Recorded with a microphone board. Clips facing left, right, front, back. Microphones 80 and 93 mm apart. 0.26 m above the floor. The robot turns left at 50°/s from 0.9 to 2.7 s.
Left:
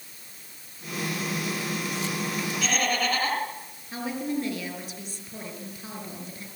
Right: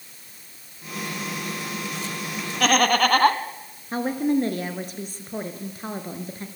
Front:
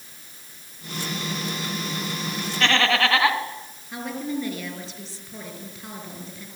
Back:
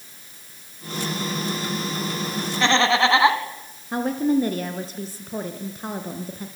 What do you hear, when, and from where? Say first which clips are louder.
2.6 s laughter: right 10 dB, back 3 dB; 105° right, 3 m; by 3.4 s 110° right, 3 m
3.9 s a woman speaking: right 7 dB, back 9 dB; 135° right, 4 m